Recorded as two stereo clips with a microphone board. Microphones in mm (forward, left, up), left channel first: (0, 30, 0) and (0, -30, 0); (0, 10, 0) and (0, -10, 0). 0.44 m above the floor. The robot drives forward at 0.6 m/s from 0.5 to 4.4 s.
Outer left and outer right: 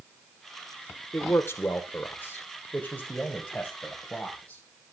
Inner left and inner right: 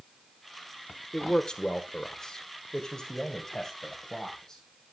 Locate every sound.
1.1 s a man speaking: 40° left (ahead or behind), 0.9 m; by 4.6 s 15° left (ahead or behind), 2 m